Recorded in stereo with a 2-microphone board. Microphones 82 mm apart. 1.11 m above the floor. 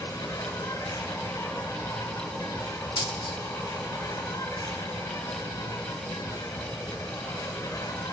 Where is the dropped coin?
75° left (ahead or behind), 1.2 m.